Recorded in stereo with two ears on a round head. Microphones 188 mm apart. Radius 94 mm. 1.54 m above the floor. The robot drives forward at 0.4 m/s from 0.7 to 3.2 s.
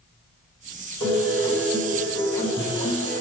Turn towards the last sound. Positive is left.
turn(degrees=20)  # may be behind; listen again after turning